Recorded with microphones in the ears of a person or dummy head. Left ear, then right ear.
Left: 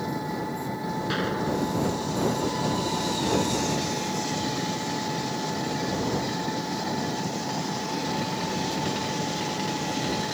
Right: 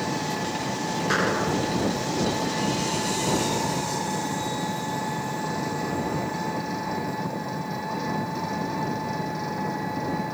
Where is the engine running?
20° right (ahead or behind).